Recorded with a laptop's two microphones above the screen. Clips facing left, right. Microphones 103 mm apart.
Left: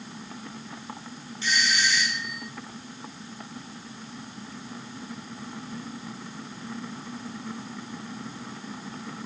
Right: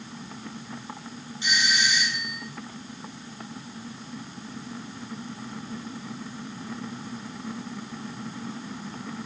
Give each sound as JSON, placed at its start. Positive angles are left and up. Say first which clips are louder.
{"t": 1.4, "sound": "a doorbell", "louder": "even", "side_deg": -15, "distance_m": 2.0}